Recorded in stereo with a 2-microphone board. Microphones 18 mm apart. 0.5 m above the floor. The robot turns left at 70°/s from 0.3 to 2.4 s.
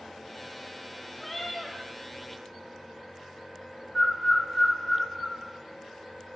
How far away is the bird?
About 1.6 m.